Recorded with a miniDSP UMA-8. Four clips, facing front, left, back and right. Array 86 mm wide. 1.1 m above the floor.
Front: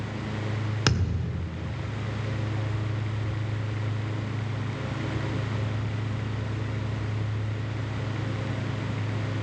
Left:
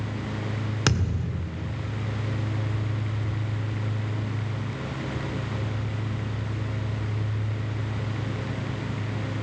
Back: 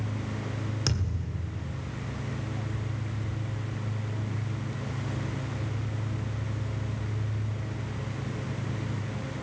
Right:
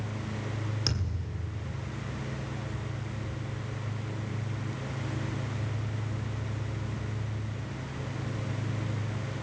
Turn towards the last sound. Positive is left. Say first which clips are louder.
# left 9 dB, front 5 dB
turn(degrees=50)